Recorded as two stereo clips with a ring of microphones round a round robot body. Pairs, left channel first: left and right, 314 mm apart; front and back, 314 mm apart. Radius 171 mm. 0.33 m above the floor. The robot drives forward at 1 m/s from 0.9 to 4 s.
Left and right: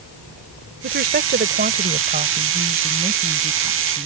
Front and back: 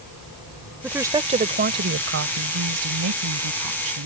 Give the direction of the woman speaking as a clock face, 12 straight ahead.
3 o'clock.